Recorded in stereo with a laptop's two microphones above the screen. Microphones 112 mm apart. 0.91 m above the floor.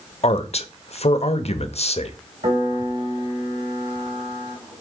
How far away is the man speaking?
About 0.8 m.